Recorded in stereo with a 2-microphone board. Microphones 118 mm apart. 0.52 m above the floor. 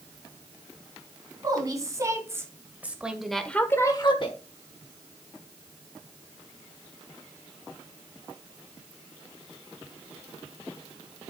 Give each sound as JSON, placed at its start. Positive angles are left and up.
{"t": 1.4, "sound": "a woman speaking", "side_deg": -30, "distance_m": 3.5}